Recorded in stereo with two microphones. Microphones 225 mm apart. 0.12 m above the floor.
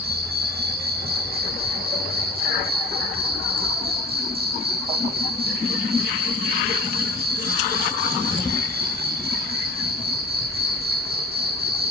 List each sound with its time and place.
0.0 s an insect: 45° right (ahead or behind), 2.5 m